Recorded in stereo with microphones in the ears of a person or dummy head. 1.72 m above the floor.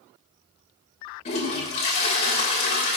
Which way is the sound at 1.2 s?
40° left (ahead or behind).